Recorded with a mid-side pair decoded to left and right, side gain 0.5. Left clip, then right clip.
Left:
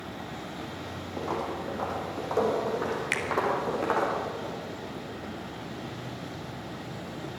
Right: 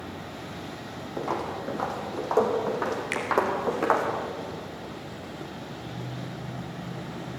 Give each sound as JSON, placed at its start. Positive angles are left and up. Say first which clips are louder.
{"t": 1.2, "sound": "footsteps", "louder": "right 2 dB", "azimuth_deg": -25, "distance_m": 5.5}
{"t": 3.1, "sound": "a finger snap", "louder": "left 1 dB", "azimuth_deg": 20, "distance_m": 4.0}